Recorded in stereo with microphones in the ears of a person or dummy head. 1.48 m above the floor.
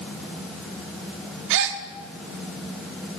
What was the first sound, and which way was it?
A gasp, 65° right (ahead or behind).